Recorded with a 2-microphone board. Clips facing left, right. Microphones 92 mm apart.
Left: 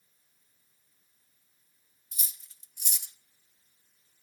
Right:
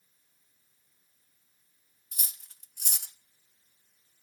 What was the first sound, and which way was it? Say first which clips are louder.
Cutlery clinking: right 2 dB; 60° right (ahead or behind).